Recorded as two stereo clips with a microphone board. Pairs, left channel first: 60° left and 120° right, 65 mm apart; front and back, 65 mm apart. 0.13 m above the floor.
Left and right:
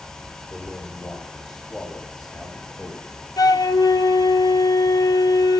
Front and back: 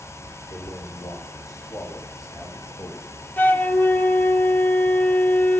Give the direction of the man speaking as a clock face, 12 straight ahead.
1 o'clock.